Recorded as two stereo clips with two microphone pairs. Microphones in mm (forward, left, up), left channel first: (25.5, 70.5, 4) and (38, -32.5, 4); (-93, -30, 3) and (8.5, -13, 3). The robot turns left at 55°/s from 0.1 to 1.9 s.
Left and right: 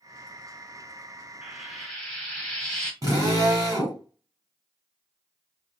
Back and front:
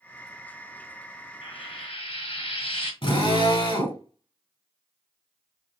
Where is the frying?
155° right, 1.6 m; by 2.9 s straight behind, 1.6 m.